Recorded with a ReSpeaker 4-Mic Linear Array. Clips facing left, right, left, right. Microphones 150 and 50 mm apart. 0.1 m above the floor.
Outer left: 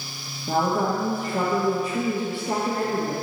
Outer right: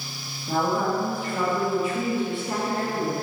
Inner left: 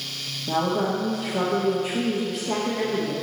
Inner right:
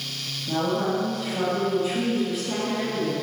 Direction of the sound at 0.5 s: 40° left (ahead or behind).